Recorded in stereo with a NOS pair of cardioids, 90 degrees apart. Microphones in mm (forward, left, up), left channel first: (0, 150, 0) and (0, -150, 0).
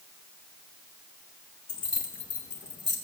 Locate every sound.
1.7 s keys jangling: 40° left, 3.5 m; by 3.0 s 35° left, 3 m